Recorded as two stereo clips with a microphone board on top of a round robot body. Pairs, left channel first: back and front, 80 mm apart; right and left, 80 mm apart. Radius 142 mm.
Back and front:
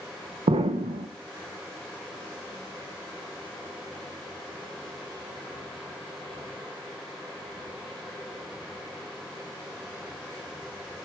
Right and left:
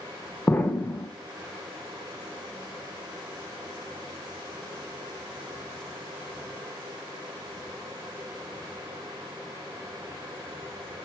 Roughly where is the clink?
I don't hear a clink.